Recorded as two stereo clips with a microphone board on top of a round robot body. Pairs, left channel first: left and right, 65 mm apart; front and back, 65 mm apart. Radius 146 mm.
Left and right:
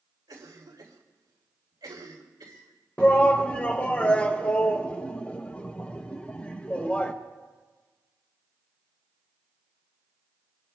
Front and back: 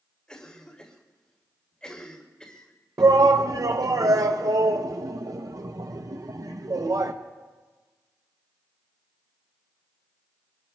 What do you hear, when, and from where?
0.3 s a cough: 75° right, 3.5 m
3.0 s a shout: 160° left, 0.8 m